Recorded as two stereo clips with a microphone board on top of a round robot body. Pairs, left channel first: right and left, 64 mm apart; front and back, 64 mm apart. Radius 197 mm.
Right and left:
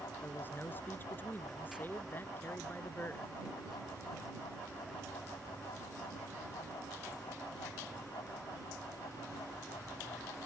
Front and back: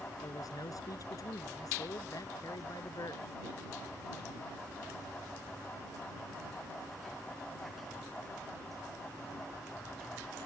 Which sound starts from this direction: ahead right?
A man speaking, at 0.2 s.